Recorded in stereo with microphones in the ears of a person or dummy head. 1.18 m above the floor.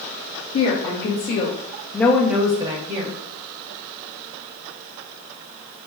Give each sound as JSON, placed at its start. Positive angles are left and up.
{"t": 0.5, "sound": "a woman speaking", "side_deg": 60, "distance_m": 1.4}